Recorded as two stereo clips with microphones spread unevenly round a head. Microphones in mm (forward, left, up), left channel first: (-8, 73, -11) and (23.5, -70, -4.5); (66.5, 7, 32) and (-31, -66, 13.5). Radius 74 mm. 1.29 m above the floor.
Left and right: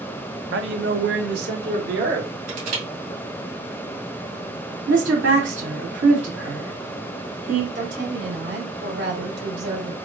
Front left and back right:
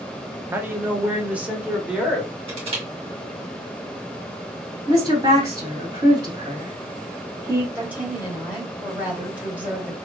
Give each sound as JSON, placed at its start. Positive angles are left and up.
{"t": 0.5, "sound": "a man speaking", "azimuth_deg": -70, "distance_m": 0.9}
{"t": 2.5, "sound": "crushing", "azimuth_deg": -100, "distance_m": 2.5}
{"t": 4.9, "sound": "a woman speaking", "azimuth_deg": -85, "distance_m": 3.0}
{"t": 7.8, "sound": "a woman speaking", "azimuth_deg": -65, "distance_m": 2.5}